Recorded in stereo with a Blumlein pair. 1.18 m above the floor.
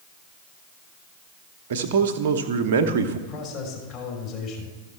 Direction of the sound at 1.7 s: 55° right.